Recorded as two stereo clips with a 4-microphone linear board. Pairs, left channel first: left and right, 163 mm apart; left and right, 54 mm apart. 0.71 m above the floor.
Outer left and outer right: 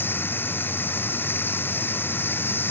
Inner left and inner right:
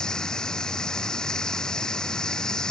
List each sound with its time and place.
0.0 s running water: 10° left (ahead or behind)